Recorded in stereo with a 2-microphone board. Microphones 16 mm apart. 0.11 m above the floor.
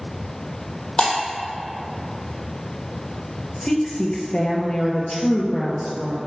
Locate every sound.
1.0 s breaking glass: 65° left (ahead or behind), 2.5 m
3.6 s a woman speaking: 55° left (ahead or behind), 1.8 m